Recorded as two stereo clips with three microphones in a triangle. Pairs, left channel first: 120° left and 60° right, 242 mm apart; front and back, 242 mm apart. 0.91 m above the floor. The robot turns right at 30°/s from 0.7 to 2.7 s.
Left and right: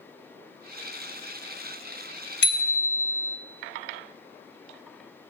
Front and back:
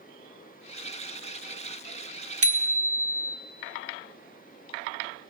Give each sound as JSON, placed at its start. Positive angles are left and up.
{"t": 2.4, "sound": "a bicycle bell", "azimuth_deg": 160, "distance_m": 2.0}